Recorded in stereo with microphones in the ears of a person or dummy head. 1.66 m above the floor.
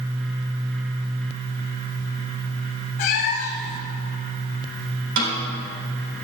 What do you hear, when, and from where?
3.0 s a cat meowing: 40° left (ahead or behind), 1.7 m
5.2 s a snare drum: 65° right (ahead or behind), 3.5 m